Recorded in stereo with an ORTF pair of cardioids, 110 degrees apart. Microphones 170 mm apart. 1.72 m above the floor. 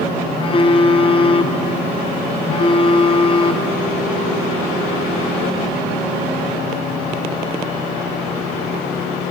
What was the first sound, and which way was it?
A phone buzzing, 35° left.